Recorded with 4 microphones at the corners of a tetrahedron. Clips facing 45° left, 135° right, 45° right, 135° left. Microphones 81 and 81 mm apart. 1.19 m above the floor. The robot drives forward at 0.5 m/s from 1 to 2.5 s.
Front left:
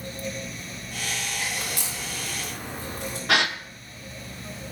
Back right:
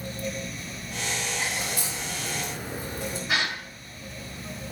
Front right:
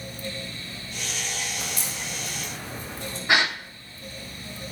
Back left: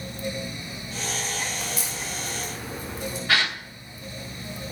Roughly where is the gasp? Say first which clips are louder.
Front left 5 dB, front right 2 dB; ahead left.